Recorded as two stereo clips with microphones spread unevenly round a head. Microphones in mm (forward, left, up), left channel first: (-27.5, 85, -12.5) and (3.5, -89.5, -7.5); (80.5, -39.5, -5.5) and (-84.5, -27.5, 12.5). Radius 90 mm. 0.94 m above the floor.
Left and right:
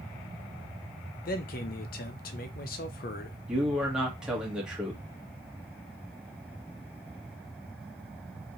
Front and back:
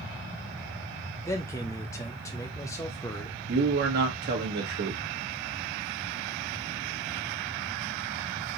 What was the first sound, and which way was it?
A man speaking, 65° left.